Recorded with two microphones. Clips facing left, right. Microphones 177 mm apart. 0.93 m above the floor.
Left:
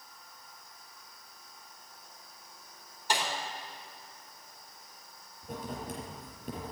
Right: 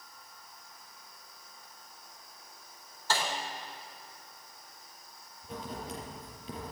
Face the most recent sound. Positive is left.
turn(degrees=50)  # may be behind; listen again after turning